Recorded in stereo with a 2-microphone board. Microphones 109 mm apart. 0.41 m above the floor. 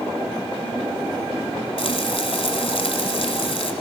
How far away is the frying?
About 1.5 m.